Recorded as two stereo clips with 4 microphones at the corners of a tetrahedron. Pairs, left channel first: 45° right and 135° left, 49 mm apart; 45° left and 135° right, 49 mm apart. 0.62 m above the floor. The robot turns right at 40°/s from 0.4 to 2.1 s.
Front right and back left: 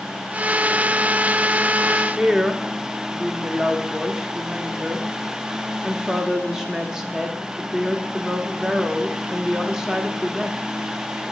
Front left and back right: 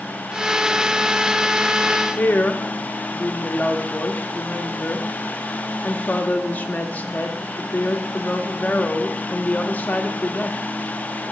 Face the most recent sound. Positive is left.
turn(degrees=70)